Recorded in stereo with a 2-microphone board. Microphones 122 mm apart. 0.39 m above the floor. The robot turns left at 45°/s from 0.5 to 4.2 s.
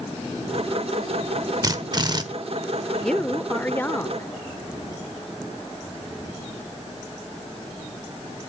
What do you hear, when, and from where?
1.6 s a drill: 30° right (ahead or behind), 1.2 m; by 2.2 s 35° right (ahead or behind), 1.2 m
3.0 s a woman speaking: 5° left (ahead or behind), 0.8 m; by 4.3 s 20° left (ahead or behind), 0.8 m